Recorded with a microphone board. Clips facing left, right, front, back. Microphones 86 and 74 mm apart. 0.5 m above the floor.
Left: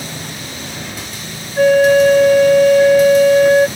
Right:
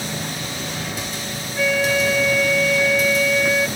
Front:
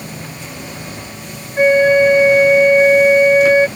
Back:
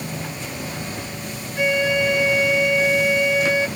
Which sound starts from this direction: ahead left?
A flute, at 1.6 s.